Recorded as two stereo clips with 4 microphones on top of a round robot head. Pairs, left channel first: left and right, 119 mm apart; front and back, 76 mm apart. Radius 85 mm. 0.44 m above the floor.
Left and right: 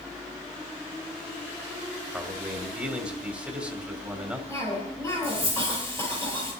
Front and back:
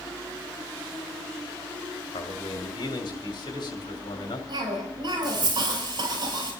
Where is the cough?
160° left, 9 m.